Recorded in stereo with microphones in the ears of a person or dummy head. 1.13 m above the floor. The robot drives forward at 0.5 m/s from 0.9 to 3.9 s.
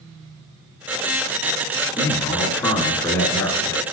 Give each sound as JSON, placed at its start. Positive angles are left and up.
{"t": 2.0, "sound": "a man speaking", "side_deg": 15, "distance_m": 2.0}